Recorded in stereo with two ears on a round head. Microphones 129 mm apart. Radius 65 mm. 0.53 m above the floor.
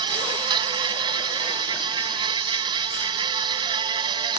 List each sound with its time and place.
0.0 s an insect: 35° right (ahead or behind)